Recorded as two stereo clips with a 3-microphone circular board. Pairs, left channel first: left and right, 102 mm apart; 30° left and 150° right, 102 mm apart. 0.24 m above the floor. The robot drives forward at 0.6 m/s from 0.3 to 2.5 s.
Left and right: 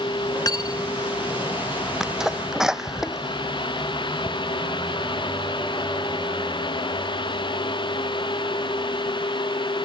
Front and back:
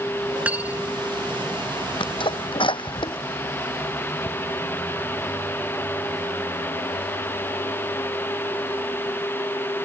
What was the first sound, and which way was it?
Cutlery clinking, 135° left.